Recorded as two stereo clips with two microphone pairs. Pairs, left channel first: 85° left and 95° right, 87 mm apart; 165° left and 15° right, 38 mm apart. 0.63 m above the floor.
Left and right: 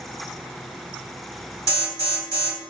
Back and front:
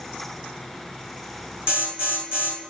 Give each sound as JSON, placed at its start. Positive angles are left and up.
{"t": 1.7, "sound": "an alarm", "azimuth_deg": 45, "distance_m": 1.6}